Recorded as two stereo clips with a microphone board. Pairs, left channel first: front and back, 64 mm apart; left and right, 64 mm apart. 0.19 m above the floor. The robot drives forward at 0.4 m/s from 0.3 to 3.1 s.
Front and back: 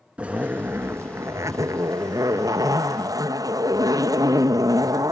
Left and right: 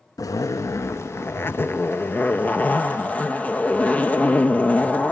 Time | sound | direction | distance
0.2 | a zipper | 110° left | 0.5 m